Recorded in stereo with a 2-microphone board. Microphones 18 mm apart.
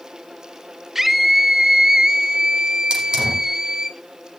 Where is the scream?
25° right (ahead or behind), 1.1 m.